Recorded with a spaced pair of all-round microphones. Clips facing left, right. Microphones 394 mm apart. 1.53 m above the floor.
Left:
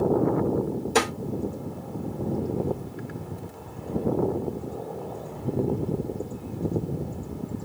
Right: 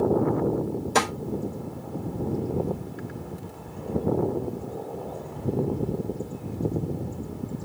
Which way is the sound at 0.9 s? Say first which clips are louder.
Left 3 dB; 10° right (ahead or behind).